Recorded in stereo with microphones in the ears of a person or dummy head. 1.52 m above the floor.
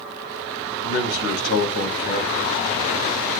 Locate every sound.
0.8 s a man speaking: 65° left (ahead or behind), 2 m